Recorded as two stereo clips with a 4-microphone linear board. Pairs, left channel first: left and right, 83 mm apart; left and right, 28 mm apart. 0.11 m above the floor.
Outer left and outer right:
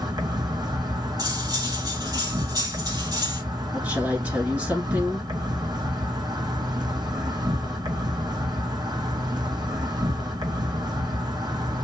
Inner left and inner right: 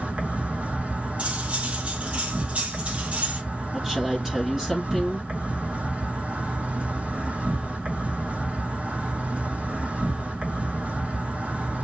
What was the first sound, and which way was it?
An insect, 60° right (ahead or behind).